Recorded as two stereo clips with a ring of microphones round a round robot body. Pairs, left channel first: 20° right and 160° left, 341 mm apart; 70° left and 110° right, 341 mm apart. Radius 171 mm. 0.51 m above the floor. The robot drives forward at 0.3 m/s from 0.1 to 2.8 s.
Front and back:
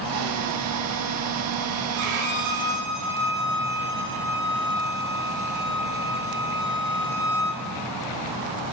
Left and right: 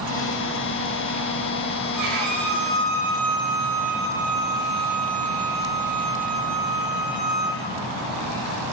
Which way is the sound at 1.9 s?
165° right.